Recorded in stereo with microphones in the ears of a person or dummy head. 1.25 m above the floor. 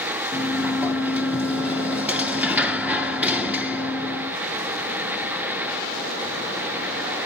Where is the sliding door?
5° right (ahead or behind), 0.6 m.